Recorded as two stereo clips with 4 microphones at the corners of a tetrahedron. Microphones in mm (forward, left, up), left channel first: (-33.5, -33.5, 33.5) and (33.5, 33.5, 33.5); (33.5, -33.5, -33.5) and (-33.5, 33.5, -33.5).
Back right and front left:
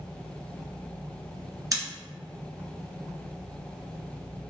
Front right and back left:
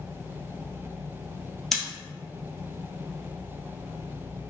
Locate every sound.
1.7 s scissors: 40° left, 1.6 m